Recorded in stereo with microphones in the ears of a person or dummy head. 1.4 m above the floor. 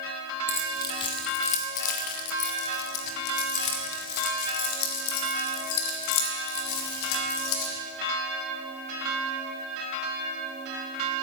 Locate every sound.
0.5 s keys jangling: 10° left (ahead or behind), 0.9 m; by 7.7 s 80° left, 4 m